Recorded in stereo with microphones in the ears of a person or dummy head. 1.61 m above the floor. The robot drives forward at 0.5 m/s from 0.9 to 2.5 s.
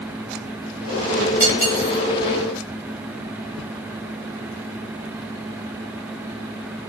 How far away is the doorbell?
I don't hear a doorbell.